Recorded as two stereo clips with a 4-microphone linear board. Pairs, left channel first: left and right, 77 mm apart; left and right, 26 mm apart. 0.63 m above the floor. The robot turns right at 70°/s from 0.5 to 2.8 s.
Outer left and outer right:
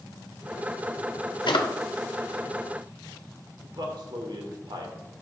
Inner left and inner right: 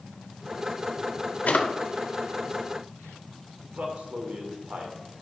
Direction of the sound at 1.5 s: 85° left.